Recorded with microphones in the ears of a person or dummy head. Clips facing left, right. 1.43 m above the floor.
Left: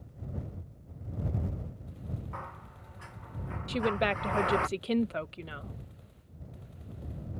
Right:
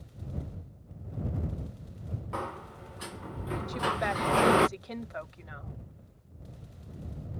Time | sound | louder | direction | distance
2.3 | a sliding door | right 8 dB | 55° right (ahead or behind) | ?
3.7 | a woman speaking | left 5 dB | 45° left (ahead or behind) | ?